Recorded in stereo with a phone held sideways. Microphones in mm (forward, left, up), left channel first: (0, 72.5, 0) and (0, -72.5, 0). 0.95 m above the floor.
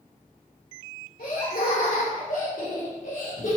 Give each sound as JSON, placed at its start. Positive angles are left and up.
{"t": 1.2, "sound": "laughter", "side_deg": 85, "distance_m": 2.5}